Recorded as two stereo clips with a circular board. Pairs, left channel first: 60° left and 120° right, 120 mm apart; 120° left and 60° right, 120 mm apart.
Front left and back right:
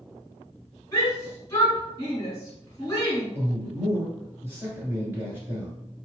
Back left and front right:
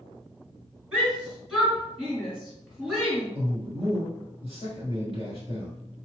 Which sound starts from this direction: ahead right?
A man speaking, at 3.4 s.